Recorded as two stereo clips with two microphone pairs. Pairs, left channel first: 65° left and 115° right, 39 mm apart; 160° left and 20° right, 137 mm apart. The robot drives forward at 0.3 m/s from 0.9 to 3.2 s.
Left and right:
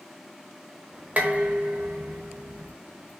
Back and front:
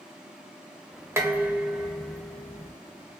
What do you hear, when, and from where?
1.2 s dishes clattering: 85° right, 0.7 m; by 2.7 s 130° right, 0.8 m